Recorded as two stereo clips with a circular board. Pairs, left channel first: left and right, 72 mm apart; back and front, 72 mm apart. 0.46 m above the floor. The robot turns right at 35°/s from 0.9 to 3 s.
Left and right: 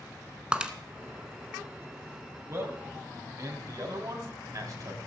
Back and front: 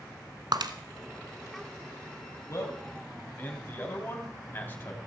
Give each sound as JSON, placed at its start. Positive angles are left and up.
{"t": 0.5, "sound": "breaking glass", "azimuth_deg": -15, "distance_m": 1.1}
{"t": 2.5, "sound": "a man speaking", "azimuth_deg": -140, "distance_m": 3.0}